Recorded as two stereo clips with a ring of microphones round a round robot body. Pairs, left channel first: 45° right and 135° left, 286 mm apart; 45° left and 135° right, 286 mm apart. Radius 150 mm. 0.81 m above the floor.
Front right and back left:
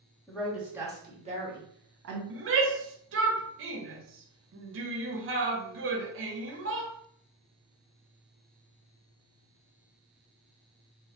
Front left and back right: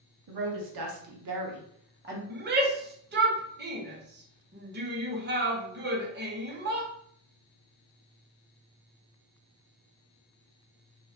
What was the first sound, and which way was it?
A woman speaking, 130° right.